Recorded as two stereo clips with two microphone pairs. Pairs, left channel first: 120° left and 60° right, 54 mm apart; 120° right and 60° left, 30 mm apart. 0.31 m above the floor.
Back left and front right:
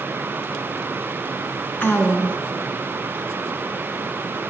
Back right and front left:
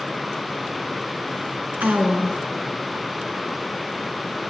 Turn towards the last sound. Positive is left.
turn(degrees=70)